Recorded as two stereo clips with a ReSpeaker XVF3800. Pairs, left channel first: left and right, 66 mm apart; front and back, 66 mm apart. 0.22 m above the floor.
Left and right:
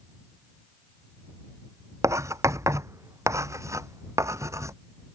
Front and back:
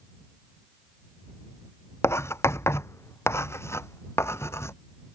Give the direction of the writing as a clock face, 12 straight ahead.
2 o'clock.